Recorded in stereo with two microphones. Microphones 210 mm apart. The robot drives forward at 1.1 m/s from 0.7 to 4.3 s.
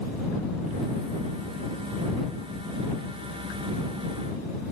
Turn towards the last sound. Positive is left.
No sound to turn to.